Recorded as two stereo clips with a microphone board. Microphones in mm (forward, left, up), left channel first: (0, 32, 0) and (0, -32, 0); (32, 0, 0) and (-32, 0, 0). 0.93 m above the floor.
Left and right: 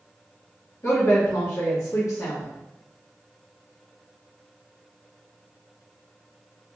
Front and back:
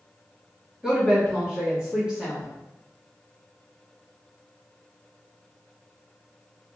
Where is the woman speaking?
105° left, 1.5 m.